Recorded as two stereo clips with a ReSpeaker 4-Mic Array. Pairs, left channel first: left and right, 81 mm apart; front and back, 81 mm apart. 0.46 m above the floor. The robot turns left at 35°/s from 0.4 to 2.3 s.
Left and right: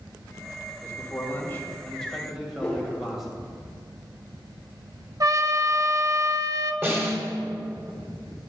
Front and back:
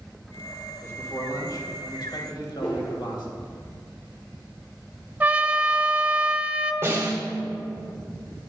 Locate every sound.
0.8 s a man speaking: 50° left, 2 m; by 3.4 s straight ahead, 2 m
2.6 s a whoosh: 15° left, 2.5 m
5.2 s a trumpet: 115° right, 0.5 m
6.8 s a snare drum: 135° right, 1.8 m